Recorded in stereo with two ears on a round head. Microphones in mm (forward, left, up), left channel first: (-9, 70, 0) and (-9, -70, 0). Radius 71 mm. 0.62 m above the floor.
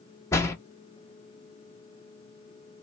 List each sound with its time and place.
0.3 s a door slam: 20° left (ahead or behind), 0.6 m